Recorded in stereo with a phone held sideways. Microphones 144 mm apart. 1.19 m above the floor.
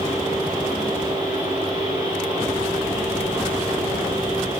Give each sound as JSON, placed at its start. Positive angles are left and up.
{"t": 0.0, "sound": "a fan", "side_deg": -35, "distance_m": 3.5}